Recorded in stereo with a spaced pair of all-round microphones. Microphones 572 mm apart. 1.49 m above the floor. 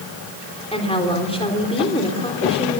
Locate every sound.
0.7 s a woman speaking: 10° left (ahead or behind), 3.5 m